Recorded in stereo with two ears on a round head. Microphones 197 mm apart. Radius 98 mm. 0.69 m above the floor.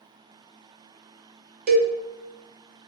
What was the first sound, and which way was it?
A cowbell, 40° right (ahead or behind).